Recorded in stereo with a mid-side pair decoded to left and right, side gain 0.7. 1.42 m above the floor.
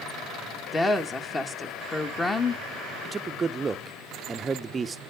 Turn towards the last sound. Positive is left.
turn(degrees=-25)